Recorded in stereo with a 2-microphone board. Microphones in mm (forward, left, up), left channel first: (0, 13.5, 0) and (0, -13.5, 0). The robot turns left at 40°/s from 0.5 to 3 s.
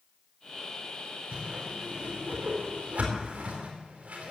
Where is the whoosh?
50° right (ahead or behind), 4 m; by 4.3 s 65° right (ahead or behind), 4 m.